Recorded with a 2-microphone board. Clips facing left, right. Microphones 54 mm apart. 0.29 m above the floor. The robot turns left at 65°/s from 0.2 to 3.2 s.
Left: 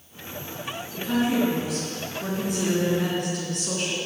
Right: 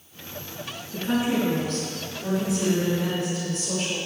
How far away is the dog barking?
No dog barking in this recording.